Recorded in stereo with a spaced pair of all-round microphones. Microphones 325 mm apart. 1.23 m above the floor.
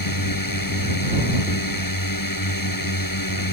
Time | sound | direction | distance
0.0 | a drone | 90° left | ?